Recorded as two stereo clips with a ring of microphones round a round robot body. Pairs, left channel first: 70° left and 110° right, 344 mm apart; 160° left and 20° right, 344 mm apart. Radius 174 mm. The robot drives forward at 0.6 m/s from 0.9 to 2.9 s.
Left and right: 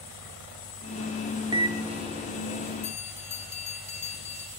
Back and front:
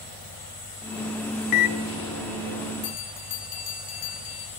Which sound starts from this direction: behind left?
A bell, at 2.8 s.